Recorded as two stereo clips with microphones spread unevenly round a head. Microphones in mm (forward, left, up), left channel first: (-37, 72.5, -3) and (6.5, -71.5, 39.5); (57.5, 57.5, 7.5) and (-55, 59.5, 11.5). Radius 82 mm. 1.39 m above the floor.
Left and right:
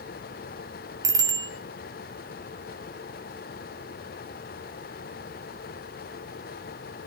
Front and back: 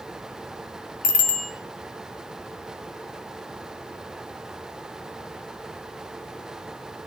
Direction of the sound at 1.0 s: 5° right.